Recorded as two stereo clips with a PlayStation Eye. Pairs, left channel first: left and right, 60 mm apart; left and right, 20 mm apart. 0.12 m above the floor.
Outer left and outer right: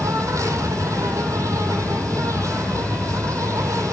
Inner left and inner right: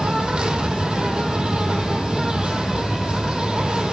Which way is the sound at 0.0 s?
65° right (ahead or behind).